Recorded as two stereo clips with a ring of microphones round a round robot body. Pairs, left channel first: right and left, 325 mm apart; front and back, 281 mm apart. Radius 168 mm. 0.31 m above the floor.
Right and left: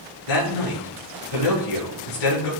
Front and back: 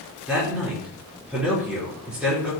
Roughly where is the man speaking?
Right.